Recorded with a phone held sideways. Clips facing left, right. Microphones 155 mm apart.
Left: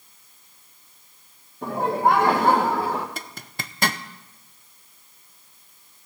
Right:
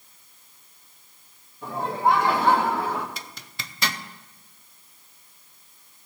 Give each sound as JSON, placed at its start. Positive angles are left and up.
{"t": 1.6, "sound": "laughter", "side_deg": 65, "distance_m": 1.2}
{"t": 3.2, "sound": "a zipper", "side_deg": 50, "distance_m": 0.5}